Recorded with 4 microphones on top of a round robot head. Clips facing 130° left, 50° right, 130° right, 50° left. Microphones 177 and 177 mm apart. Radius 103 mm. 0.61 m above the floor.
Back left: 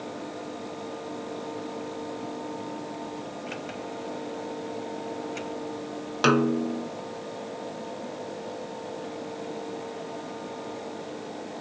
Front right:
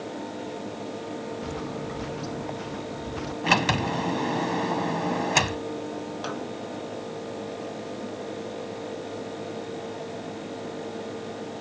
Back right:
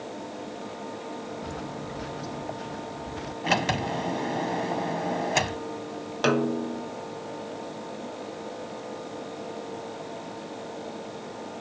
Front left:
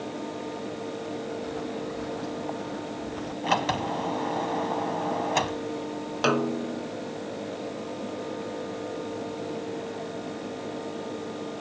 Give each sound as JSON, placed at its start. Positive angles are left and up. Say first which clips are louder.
{"t": 1.4, "sound": "footsteps", "louder": "front right 2 dB, front left 4 dB", "azimuth_deg": -70}
{"t": 3.4, "sound": "a sliding door", "louder": "front right 9 dB, even", "azimuth_deg": -60}
{"t": 6.2, "sound": "a snare drum", "louder": "back left 10 dB, back right 1 dB", "azimuth_deg": 145}